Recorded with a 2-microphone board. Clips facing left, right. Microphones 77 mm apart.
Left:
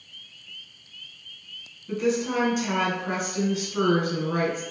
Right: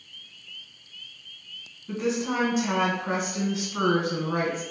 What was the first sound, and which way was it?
A woman speaking, 30° right (ahead or behind).